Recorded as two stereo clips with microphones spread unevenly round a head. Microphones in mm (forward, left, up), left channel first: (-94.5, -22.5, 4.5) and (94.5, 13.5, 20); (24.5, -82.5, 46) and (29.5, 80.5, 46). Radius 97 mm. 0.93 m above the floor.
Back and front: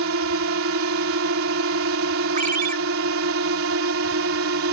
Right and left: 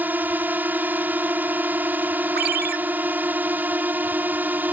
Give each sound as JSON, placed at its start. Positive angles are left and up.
{"t": 0.0, "sound": "a drone", "azimuth_deg": 10}
{"t": 2.4, "sound": "a ringtone", "azimuth_deg": 65}